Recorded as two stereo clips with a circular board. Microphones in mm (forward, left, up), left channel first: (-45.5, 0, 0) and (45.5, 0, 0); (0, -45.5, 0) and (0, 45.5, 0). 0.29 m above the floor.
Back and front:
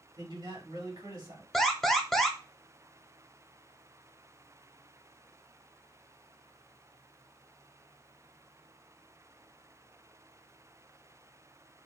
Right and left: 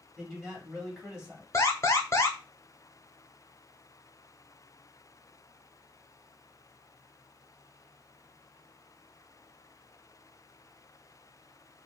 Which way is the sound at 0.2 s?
10° left.